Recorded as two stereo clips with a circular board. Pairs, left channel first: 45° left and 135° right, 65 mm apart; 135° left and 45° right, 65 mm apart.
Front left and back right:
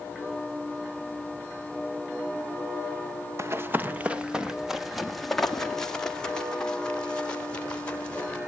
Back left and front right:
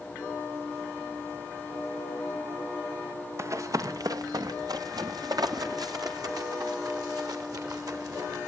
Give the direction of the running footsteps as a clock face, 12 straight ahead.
3 o'clock.